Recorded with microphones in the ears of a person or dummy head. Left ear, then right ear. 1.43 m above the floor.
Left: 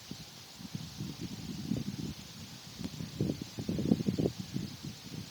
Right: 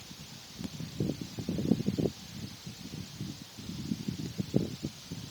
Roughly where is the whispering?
I don't hear whispering.